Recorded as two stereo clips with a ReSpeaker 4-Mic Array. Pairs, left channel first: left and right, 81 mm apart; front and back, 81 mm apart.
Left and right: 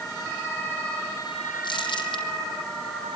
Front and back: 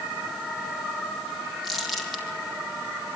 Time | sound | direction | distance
1.6 | crumpling | 90° left | 3.5 m